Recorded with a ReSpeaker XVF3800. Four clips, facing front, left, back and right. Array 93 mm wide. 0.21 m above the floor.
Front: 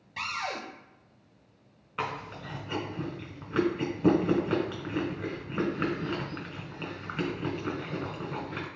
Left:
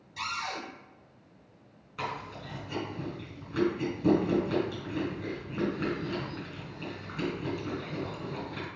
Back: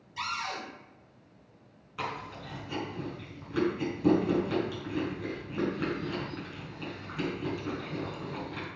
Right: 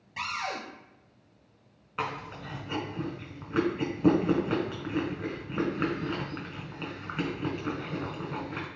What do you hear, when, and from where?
0.2 s a cupboard door: 45° right, 1.4 m
2.0 s chewing: 50° right, 1.9 m